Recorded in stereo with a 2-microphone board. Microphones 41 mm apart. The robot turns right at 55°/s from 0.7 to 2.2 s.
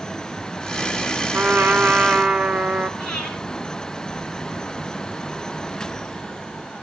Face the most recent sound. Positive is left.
turn(degrees=15)  # may be behind; listen again after turning